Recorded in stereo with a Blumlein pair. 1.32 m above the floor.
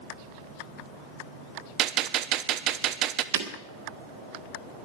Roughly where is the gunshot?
Ahead right.